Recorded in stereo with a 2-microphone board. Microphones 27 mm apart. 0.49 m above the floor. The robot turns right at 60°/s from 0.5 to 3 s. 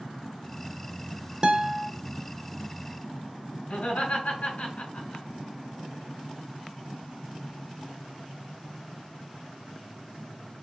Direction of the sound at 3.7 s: 65° left (ahead or behind).